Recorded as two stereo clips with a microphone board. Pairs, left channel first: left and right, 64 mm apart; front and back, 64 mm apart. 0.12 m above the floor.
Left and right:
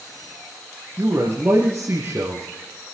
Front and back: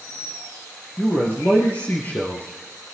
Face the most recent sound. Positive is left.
turn(degrees=-50)